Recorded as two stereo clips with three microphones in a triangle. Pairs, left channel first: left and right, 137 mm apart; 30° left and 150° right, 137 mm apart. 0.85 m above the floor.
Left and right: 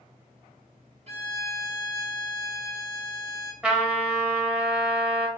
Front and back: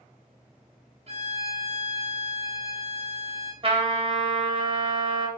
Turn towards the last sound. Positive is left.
turn(degrees=-170)